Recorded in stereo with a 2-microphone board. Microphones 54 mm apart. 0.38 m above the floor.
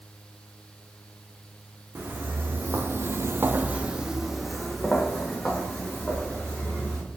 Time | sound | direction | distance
1.9 | footsteps | 35° right (ahead or behind) | 1.2 m